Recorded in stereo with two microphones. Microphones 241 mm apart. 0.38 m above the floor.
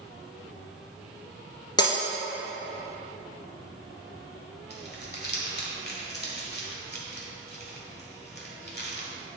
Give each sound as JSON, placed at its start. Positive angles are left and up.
{"t": 1.8, "sound": "breaking glass", "side_deg": 20, "distance_m": 1.5}
{"t": 4.7, "sound": "crumpling", "side_deg": 45, "distance_m": 1.5}